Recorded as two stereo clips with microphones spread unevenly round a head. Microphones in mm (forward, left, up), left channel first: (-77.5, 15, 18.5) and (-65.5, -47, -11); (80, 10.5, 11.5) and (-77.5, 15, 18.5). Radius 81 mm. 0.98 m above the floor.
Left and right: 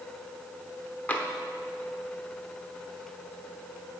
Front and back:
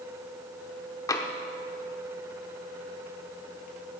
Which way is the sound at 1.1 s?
65° left.